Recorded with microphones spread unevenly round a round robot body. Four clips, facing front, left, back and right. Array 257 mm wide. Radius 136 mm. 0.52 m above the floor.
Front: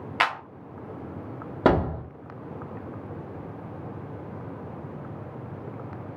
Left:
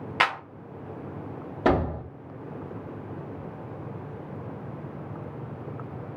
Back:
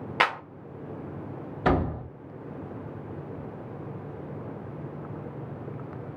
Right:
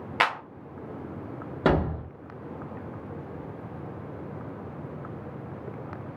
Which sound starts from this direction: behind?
A clap, at 0.2 s.